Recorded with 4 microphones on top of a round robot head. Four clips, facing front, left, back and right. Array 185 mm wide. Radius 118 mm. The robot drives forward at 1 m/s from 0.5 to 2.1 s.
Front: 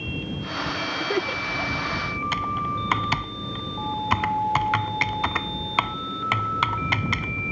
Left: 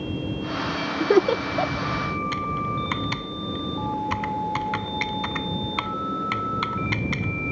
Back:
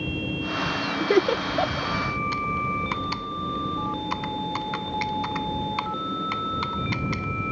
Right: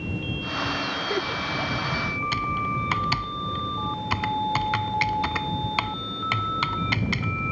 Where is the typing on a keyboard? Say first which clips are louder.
Even, front 1 dB; 20° right.